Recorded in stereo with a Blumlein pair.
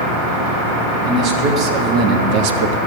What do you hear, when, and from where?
1.1 s a man speaking: 35° right, 1.8 m; by 2.8 s 55° right, 0.5 m